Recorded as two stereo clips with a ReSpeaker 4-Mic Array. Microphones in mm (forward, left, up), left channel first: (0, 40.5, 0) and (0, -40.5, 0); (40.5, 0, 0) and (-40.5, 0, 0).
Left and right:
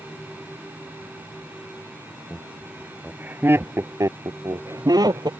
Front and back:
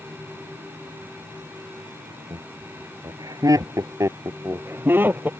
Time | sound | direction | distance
2.3 | laughter | straight behind | ?